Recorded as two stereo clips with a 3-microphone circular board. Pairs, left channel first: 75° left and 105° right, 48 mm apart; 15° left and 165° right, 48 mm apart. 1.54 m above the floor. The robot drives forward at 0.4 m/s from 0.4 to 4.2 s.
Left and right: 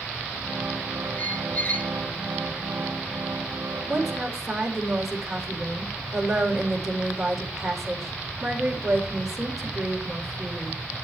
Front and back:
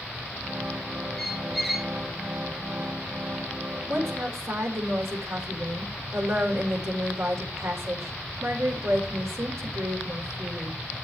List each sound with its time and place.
1.2 s a squeak: 95° left, 1.5 m; by 1.9 s 110° left, 1.5 m
3.9 s a woman speaking: 165° left, 5 m; by 10.8 s 170° left, 5 m